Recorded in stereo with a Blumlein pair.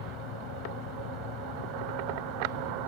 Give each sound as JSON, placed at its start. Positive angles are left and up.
{"t": 0.0, "sound": "a fan", "azimuth_deg": 35}